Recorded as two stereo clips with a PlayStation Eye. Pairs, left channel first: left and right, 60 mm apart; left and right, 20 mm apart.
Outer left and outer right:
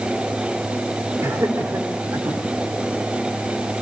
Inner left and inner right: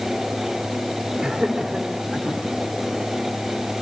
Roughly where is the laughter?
Right.